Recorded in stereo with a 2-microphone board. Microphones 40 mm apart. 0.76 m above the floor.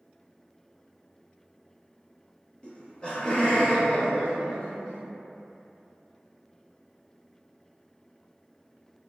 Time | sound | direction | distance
2.6 | laughter | 25° left (ahead or behind) | 0.7 m